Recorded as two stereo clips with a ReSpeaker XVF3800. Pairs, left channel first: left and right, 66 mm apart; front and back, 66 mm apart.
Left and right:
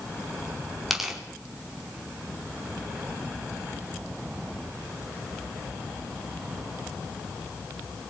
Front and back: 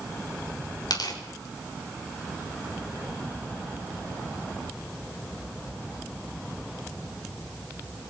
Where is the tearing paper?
Straight ahead, 4.5 m.